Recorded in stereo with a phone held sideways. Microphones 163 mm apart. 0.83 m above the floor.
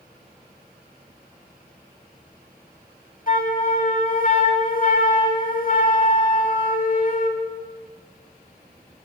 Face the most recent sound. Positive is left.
turn(degrees=60)  # may be behind; listen again after turning